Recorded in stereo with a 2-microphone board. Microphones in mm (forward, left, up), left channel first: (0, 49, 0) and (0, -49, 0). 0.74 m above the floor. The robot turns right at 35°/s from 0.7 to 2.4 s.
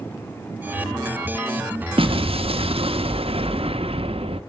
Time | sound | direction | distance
2.0 | an explosion | 70° right (ahead or behind) | 0.8 m